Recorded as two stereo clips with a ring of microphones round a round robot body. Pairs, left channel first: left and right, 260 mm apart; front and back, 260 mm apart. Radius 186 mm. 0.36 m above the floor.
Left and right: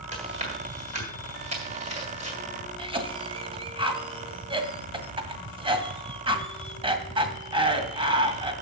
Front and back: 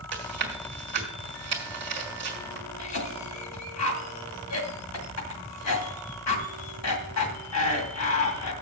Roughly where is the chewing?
Behind right.